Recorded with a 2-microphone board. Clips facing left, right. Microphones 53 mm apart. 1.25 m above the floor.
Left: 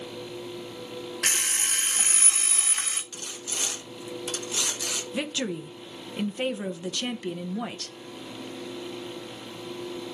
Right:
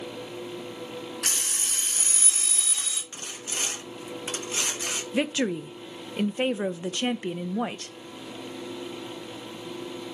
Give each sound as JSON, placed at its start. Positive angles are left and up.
{"t": 1.2, "sound": "an alarm clock", "side_deg": 55, "distance_m": 0.7}
{"t": 3.1, "sound": "sawing", "side_deg": -30, "distance_m": 0.7}
{"t": 5.1, "sound": "a woman speaking", "side_deg": -25, "distance_m": 0.5}